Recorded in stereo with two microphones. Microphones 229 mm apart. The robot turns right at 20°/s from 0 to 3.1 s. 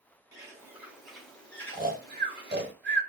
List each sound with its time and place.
0.3 s a bird: 15° right, 1.0 m; by 2.7 s 30° left, 1.0 m
1.7 s snoring: 35° right (ahead or behind), 0.7 m; by 3.0 s 55° right (ahead or behind), 0.7 m